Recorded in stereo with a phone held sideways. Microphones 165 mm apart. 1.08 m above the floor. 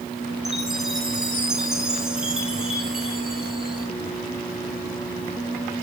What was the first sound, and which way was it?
A chime, 5° right (ahead or behind).